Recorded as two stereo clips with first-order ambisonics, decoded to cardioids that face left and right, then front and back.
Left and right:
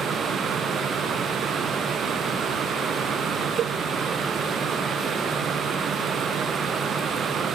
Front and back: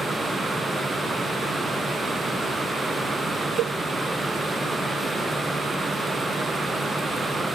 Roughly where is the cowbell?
Behind right.